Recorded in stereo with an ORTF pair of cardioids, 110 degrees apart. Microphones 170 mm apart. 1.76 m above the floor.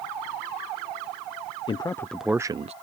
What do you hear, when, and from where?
1.7 s a man speaking: 25° left; by 2.7 s 40° right